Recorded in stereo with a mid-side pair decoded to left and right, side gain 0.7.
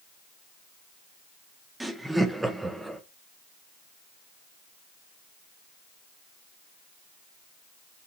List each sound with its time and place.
1.8 s laughter: 10° right, 1.3 m